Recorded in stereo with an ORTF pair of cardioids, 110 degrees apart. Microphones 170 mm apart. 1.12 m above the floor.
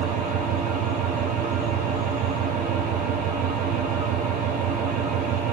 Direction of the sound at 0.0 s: 55° right.